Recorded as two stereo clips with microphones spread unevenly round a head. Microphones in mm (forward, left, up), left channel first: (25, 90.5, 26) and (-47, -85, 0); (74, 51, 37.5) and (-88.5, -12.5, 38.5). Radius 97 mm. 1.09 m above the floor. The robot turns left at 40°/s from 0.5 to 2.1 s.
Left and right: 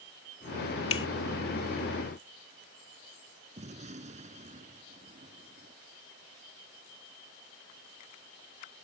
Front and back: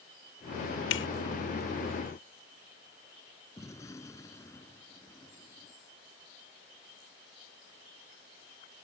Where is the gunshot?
55° right.